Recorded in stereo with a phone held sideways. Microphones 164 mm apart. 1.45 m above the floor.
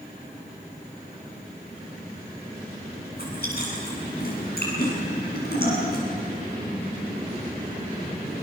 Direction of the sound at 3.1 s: 70° left (ahead or behind).